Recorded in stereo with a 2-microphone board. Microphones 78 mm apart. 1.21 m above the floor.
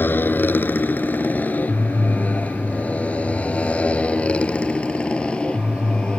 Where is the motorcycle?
25° left (ahead or behind); by 6.2 s 10° left (ahead or behind).